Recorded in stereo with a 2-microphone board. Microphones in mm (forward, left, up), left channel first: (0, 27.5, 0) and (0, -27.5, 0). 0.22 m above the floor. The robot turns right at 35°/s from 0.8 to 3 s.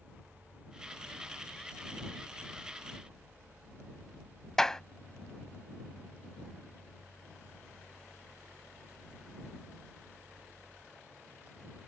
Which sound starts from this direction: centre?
A clap, at 4.6 s.